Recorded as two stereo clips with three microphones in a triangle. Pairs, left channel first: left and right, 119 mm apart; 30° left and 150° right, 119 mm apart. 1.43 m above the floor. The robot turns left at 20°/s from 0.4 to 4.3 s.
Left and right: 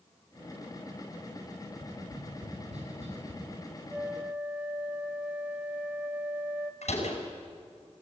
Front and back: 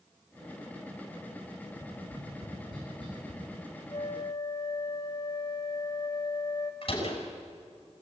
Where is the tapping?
75° right, 9 m; by 3.4 s 110° right, 9 m.